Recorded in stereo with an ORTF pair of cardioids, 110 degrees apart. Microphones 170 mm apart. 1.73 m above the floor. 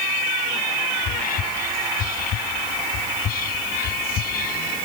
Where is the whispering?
60° left.